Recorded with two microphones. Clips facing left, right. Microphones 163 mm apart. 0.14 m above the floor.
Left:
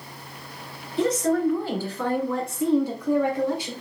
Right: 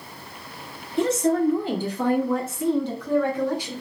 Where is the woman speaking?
30° right (ahead or behind), 1.8 m; by 3.7 s 30° left (ahead or behind), 1.3 m.